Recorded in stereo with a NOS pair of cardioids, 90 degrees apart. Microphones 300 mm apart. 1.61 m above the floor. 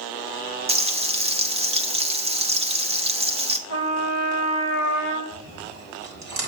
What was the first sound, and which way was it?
Frying, 20° right.